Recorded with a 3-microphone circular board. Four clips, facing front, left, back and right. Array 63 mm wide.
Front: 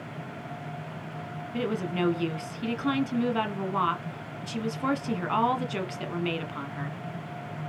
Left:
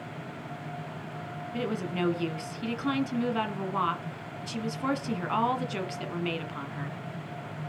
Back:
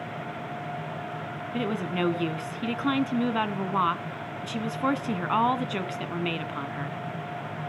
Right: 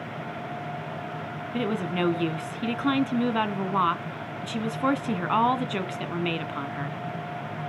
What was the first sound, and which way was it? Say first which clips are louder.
A woman speaking: right 4 dB, even; 115° right.